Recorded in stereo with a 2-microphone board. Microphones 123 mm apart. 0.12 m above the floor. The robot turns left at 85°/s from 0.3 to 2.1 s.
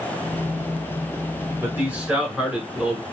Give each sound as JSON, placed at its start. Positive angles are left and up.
{"t": 1.6, "sound": "a man speaking", "side_deg": -20, "distance_m": 1.1}